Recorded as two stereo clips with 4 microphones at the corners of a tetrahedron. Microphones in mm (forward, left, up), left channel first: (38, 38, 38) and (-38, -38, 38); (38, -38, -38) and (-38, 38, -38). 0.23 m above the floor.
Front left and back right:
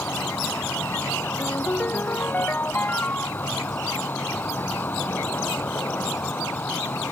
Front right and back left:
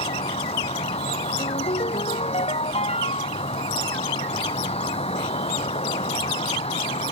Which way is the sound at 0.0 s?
25° right.